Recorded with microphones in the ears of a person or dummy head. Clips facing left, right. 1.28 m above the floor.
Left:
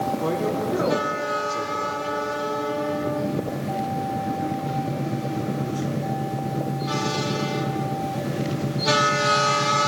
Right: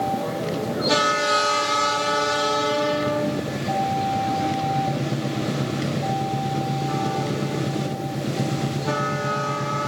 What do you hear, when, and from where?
0.2 s a man speaking: 75° left (ahead or behind), 4 m